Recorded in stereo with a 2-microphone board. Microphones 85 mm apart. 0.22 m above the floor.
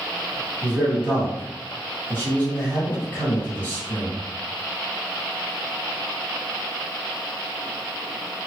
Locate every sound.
0.6 s a man speaking: 20° left (ahead or behind), 1.8 m